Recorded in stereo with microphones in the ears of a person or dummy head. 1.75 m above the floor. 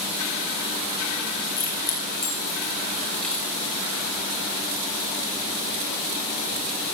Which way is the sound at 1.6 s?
20° left (ahead or behind).